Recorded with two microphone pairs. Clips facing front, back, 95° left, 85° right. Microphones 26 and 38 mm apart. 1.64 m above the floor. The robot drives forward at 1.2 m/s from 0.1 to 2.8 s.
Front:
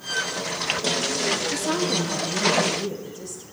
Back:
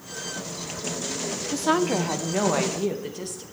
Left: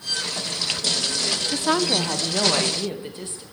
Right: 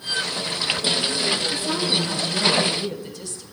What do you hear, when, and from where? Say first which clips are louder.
1.5 s a woman speaking: back 1 dB, left 2 dB; 120° left, 1.1 m; by 3.4 s 155° left, 2.5 m